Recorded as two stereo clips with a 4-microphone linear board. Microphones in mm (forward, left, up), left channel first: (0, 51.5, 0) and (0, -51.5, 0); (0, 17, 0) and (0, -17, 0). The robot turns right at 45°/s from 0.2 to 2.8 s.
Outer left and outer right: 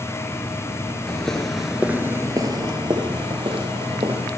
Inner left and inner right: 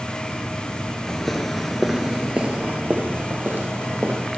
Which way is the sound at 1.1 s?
5° left (ahead or behind).